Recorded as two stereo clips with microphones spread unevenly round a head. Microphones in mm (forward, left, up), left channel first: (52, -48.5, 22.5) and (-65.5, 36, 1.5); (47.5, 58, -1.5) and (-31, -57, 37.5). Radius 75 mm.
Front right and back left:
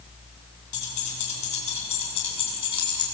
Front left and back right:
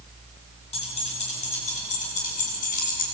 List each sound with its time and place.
0.7 s keys jangling: 10° left, 8 m; by 3.0 s 25° left, 7 m